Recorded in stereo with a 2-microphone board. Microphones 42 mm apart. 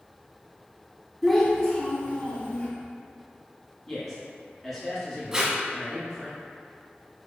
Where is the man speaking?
5° left (ahead or behind), 1.0 m.